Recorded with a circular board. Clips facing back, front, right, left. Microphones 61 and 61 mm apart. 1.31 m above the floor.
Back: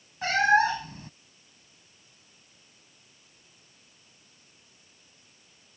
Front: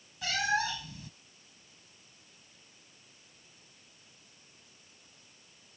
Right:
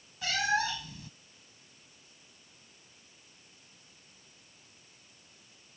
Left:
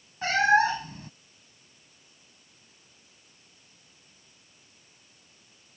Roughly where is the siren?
I don't hear a siren.